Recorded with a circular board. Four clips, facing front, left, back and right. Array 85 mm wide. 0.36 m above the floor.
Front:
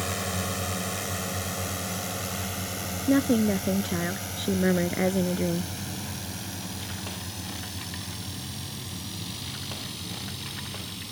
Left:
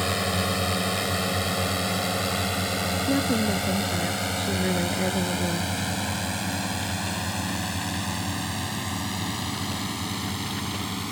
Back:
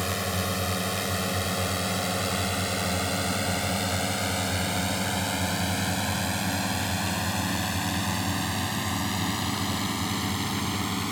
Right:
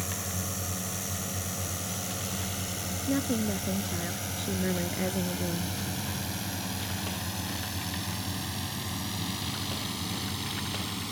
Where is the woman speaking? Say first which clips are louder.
Left 4 dB, front 7 dB; 10° left.